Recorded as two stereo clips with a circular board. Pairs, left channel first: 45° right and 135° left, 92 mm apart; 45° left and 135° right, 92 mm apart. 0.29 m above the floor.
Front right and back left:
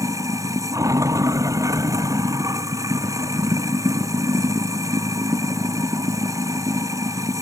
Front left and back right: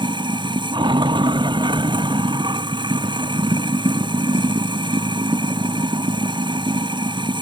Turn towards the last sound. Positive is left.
turn(degrees=-170)